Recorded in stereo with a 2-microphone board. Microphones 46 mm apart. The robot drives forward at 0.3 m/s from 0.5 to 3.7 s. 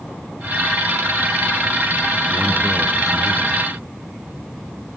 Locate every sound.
2.3 s a man speaking: 5° right (ahead or behind), 2.5 m